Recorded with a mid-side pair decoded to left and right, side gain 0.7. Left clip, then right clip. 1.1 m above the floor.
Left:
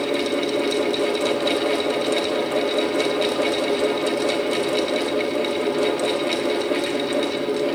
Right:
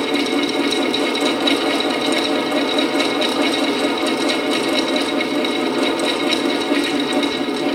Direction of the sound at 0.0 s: 20° right.